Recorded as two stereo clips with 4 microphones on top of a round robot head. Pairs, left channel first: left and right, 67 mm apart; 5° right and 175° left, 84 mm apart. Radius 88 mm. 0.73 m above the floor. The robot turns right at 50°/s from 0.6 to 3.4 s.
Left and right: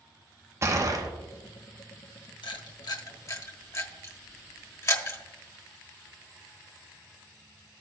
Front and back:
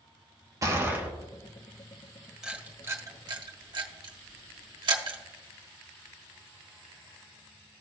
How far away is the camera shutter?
About 1.3 m.